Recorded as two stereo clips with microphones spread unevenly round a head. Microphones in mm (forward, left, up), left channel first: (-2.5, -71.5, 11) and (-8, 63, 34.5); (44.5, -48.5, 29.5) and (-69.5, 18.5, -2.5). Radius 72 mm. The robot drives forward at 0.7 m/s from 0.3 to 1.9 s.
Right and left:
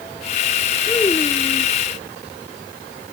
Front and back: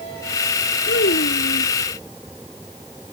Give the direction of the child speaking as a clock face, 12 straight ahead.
1 o'clock.